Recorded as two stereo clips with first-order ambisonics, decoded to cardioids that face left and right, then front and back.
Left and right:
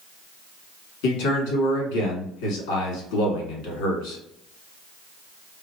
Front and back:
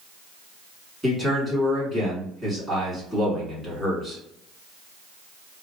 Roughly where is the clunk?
I don't hear a clunk.